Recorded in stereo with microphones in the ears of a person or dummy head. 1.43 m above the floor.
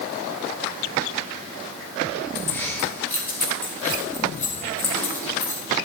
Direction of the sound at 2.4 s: 10° left (ahead or behind).